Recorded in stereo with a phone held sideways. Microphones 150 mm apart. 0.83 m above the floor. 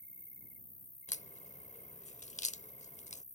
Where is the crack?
50° left (ahead or behind).